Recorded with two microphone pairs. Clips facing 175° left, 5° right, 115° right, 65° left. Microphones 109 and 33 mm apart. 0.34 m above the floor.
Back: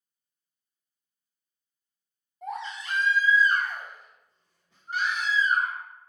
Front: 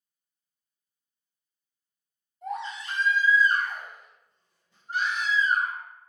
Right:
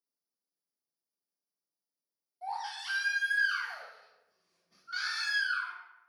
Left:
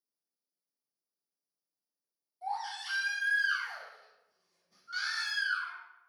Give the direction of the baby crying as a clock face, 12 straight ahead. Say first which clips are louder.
Front 1 dB, even; 6 o'clock.